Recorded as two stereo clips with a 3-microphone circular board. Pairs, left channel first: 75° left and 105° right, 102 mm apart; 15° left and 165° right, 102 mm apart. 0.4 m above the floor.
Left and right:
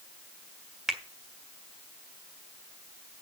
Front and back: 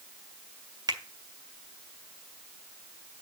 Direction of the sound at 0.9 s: 170° left.